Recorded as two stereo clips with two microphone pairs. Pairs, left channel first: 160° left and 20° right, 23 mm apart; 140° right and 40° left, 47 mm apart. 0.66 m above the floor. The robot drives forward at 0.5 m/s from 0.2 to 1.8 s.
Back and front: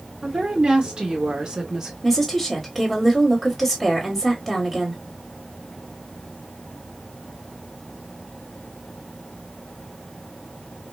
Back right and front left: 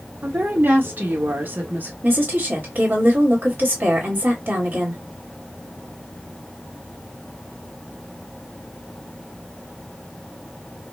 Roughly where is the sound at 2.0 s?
Left.